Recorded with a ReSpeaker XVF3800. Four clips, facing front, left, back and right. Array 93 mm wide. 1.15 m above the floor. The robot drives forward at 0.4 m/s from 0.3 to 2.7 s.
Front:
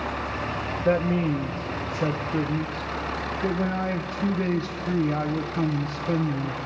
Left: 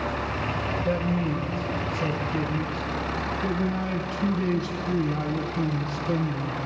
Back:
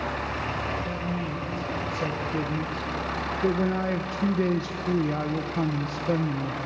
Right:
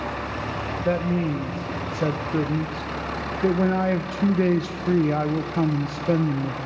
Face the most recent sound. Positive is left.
turn(degrees=-95)